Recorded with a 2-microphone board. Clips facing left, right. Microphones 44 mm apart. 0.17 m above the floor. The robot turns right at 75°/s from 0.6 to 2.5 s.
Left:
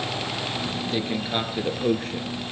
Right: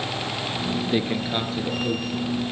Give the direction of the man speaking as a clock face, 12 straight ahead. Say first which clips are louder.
Right 1 dB; 1 o'clock.